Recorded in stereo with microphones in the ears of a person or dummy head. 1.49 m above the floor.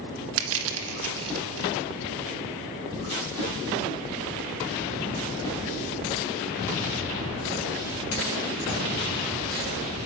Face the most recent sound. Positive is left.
turn(degrees=-75)  # may be behind; listen again after turning